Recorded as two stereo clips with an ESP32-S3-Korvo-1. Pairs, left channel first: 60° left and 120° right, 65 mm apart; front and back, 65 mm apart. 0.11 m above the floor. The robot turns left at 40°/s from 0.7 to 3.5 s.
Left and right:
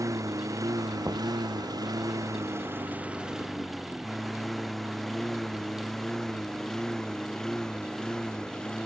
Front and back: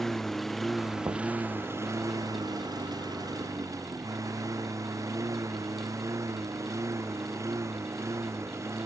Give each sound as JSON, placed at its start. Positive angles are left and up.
{"t": 0.0, "sound": "a lawn mower", "azimuth_deg": -85}
{"t": 1.0, "sound": "knocking", "azimuth_deg": -170}